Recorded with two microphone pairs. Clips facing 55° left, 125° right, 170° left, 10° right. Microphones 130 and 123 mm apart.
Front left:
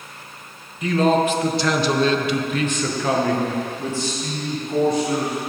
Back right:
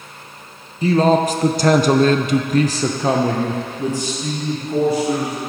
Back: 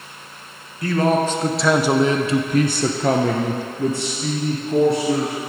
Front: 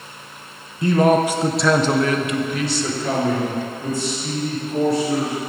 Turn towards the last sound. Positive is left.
turn(degrees=150)